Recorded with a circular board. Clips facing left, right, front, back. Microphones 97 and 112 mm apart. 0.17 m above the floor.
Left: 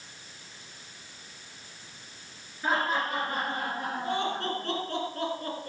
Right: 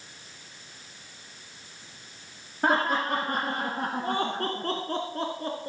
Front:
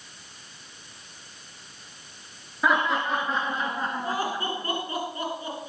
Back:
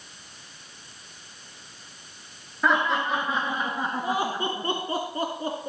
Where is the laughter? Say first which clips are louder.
Right 3 dB, even; 85° right, 2 m; by 5.7 s 150° right, 1.6 m.